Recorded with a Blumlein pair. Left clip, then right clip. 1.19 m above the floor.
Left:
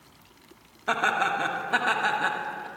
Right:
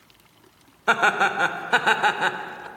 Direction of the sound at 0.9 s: 70° right.